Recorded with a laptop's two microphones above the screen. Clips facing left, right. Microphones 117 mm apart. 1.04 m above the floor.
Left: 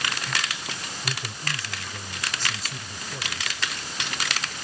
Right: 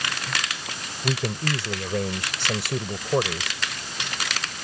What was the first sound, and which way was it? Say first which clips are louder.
A man speaking: right 10 dB; 75° right (ahead or behind).